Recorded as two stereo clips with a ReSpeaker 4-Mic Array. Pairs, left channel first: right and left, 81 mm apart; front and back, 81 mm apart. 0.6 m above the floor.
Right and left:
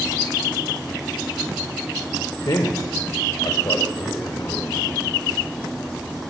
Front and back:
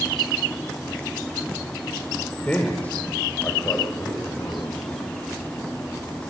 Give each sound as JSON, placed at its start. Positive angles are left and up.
{"t": 2.5, "sound": "a man speaking", "azimuth_deg": -75, "distance_m": 2.0}